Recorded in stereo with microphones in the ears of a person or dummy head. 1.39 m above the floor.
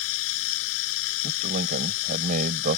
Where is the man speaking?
50° right (ahead or behind).